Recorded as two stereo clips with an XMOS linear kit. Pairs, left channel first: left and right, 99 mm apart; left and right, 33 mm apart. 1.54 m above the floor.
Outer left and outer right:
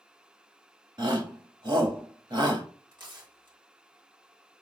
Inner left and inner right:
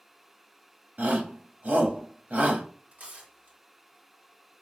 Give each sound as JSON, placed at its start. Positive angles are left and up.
{"t": 1.0, "sound": "a shout", "side_deg": -55, "distance_m": 1.3}
{"t": 2.9, "sound": "tearing paper", "side_deg": -50, "distance_m": 1.9}